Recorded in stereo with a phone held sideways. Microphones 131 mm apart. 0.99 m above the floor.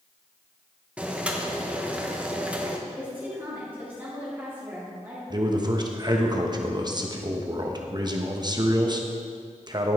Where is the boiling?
10° right (ahead or behind), 0.9 m.